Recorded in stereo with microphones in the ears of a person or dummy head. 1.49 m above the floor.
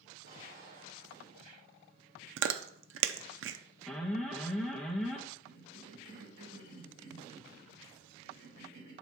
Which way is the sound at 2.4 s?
65° right (ahead or behind).